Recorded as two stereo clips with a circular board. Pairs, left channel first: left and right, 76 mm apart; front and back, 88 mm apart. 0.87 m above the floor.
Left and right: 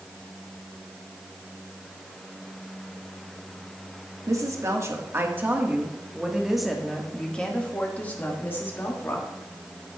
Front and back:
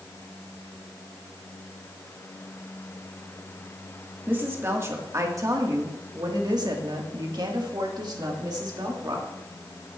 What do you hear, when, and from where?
4.3 s a woman speaking: 120° right, 1.6 m; by 9.3 s 140° left, 2.5 m